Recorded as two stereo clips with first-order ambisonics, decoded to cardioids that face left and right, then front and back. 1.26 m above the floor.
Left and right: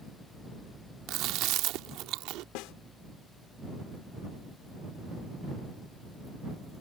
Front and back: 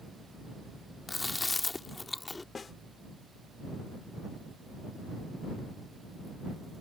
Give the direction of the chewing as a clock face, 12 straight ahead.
3 o'clock.